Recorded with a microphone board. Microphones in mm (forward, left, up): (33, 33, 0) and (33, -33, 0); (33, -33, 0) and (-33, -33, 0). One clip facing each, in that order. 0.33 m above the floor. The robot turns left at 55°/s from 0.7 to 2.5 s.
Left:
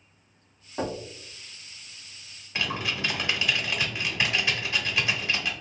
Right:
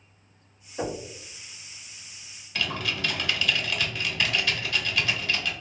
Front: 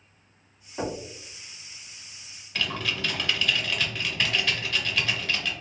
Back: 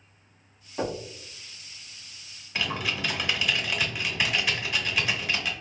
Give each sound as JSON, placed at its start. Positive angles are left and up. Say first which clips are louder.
{"t": 0.8, "sound": "knocking", "louder": "even, back 1 dB", "azimuth_deg": 95, "distance_m": 1.9}
{"t": 2.5, "sound": "typing on a keyboard", "louder": "even, even", "azimuth_deg": 125, "distance_m": 0.8}